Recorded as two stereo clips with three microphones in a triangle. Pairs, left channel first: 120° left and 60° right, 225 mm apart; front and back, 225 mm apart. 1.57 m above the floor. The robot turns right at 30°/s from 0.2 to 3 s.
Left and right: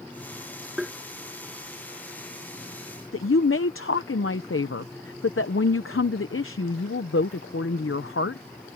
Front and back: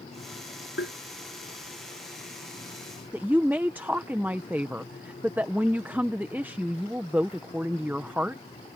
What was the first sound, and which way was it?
Tapping, 30° left.